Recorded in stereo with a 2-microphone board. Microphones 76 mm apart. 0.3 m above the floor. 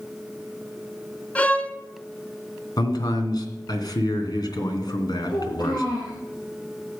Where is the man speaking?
65° left (ahead or behind), 2.5 m.